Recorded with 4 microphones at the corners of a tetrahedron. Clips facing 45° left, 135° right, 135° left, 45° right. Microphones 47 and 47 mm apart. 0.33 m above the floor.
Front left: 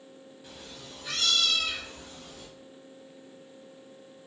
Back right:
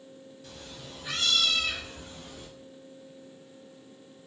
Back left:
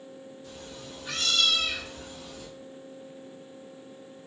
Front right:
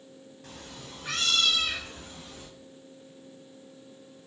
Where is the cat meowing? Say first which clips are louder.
Even, front right 1 dB; 30° right, 0.6 m; by 2.5 s 85° right, 1.7 m.